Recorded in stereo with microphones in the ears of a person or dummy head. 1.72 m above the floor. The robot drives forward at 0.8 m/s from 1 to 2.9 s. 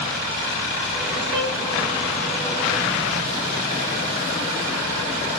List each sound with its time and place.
1.3 s a violin: 15° right (ahead or behind), 1.0 m; by 1.6 s 10° right (ahead or behind), 1.1 m